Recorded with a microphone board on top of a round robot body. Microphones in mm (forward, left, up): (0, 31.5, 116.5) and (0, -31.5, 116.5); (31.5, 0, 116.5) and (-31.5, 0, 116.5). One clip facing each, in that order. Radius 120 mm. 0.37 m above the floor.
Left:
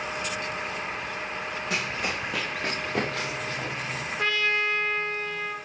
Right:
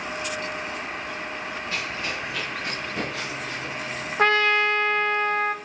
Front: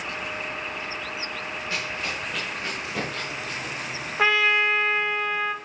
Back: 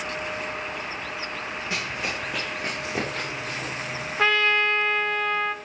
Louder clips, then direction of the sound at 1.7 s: Left 2 dB, back 1 dB; 110° left.